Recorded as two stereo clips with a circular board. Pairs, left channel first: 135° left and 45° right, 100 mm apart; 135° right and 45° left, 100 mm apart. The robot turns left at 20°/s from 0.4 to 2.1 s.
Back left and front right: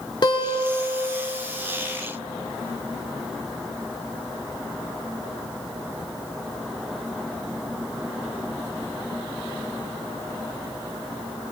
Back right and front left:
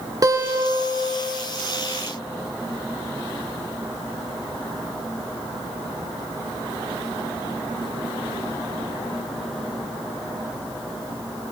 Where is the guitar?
95° left, 1.6 m; by 1.1 s 80° left, 1.6 m.